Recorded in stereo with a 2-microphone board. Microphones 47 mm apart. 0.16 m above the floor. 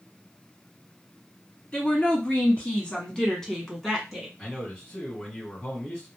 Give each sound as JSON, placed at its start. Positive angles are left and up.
{"t": 1.7, "sound": "a woman speaking", "side_deg": 30, "distance_m": 1.3}
{"t": 4.4, "sound": "a man speaking", "side_deg": 20, "distance_m": 1.7}